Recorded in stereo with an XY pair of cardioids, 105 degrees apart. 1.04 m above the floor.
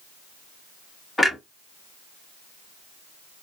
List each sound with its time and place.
1.2 s a clunk: 20° left, 1.3 m